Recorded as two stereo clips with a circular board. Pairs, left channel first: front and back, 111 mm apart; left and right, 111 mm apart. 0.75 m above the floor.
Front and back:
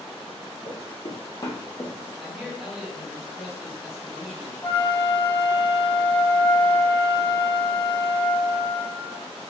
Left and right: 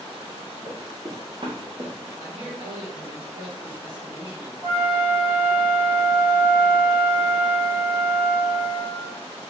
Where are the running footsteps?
15° right, 1.8 m; by 2.0 s 85° right, 1.6 m.